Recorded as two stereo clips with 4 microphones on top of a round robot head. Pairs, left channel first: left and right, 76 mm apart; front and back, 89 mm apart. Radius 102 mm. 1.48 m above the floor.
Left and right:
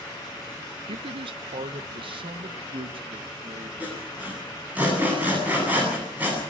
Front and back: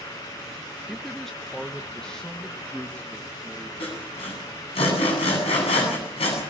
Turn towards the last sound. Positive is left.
turn(degrees=-15)